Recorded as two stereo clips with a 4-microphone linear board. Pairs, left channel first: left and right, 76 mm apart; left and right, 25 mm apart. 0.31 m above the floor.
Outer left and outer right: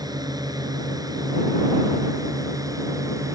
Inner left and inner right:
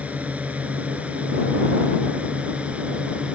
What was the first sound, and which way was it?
A drone, 55° right (ahead or behind).